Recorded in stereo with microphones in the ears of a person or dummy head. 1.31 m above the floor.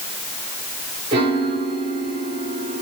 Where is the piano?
20° right (ahead or behind), 0.9 m.